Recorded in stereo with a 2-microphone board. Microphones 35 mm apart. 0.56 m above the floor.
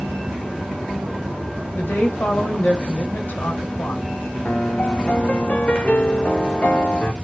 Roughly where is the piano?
Left.